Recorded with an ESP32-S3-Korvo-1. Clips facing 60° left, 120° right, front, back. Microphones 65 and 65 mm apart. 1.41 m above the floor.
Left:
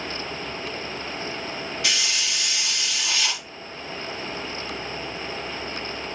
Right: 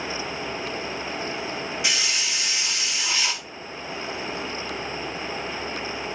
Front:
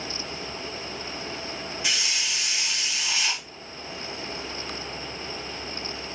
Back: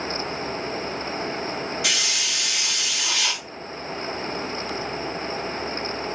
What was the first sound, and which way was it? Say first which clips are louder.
A hiss: left 2 dB, back 3 dB; 165° left.